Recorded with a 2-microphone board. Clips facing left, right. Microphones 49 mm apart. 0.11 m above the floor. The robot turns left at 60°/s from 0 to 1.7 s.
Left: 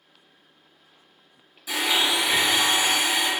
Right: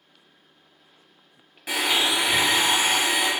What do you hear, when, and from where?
1.7 s a blender: 55° right (ahead or behind), 0.9 m